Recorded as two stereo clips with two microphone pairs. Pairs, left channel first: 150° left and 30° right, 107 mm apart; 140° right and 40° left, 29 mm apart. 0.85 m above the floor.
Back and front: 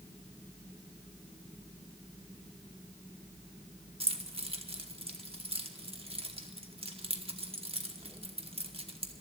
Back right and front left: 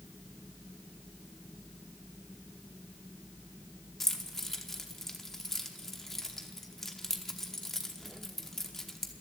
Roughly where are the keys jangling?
Ahead right.